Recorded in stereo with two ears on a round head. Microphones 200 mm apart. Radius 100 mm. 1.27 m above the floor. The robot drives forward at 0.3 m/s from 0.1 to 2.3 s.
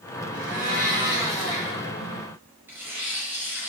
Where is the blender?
20° right (ahead or behind), 4 m.